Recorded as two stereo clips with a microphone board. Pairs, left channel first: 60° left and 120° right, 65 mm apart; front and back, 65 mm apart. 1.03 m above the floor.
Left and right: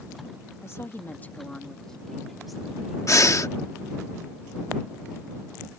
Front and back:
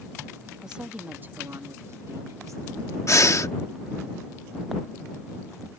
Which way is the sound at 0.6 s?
100° left.